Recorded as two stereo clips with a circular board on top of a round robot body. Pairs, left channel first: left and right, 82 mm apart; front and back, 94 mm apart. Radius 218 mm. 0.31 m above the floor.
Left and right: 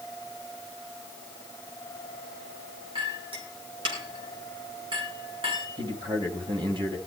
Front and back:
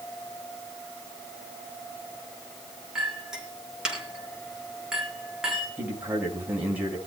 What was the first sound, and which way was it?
A clink, 95° right.